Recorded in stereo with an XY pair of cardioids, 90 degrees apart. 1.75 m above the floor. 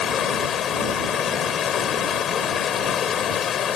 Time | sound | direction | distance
0.0 | running water | 70° left | ?